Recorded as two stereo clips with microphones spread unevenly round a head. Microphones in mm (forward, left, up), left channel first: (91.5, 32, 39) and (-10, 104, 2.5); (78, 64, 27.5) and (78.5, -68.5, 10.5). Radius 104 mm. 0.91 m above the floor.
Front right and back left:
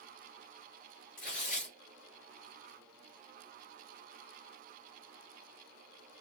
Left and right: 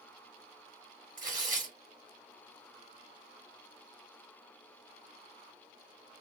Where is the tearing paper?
60° right, 5 m.